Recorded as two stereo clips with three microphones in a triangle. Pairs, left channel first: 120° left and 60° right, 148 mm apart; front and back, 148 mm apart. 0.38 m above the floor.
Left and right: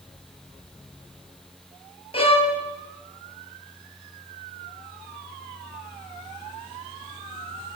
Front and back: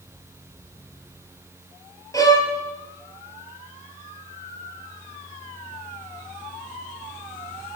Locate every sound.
2.1 s a violin: 65° left, 1.4 m